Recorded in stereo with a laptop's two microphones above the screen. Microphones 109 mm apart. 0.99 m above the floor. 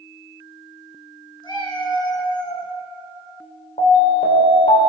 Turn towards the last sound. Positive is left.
turn(degrees=85)